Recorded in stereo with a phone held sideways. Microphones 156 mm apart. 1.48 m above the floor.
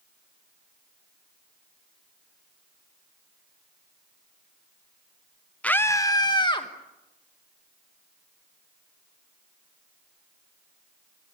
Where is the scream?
5° left (ahead or behind), 0.8 m; by 6.7 s 30° left (ahead or behind), 2.0 m.